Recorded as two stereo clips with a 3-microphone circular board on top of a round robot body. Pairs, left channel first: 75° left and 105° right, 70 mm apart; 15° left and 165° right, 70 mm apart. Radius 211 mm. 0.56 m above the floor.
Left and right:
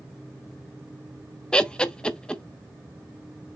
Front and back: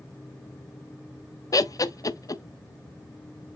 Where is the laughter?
Straight ahead, 1.1 m.